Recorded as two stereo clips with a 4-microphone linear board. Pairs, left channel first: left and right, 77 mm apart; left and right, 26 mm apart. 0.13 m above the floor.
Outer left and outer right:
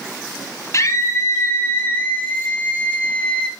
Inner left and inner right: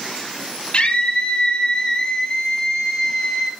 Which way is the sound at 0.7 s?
40° left (ahead or behind).